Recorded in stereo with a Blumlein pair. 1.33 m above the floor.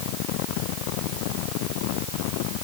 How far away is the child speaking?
I don't hear a child speaking.